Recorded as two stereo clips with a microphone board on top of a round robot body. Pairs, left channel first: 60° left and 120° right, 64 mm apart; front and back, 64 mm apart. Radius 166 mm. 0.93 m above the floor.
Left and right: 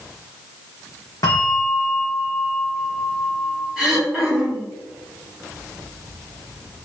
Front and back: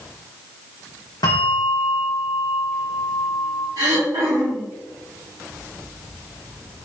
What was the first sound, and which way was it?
A bell, 20° left.